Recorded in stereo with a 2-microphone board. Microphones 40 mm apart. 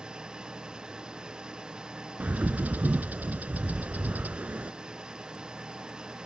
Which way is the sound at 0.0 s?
20° right (ahead or behind).